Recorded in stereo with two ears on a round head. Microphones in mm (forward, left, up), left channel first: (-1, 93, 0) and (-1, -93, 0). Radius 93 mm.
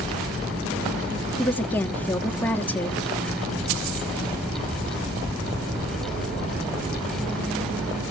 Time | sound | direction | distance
1.4 | a woman speaking | 10° left (ahead or behind) | 0.8 m